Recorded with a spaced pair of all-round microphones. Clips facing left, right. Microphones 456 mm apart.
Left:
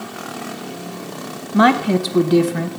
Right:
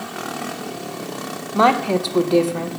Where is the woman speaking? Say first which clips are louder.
Left 3 dB; 35° left (ahead or behind), 0.7 m.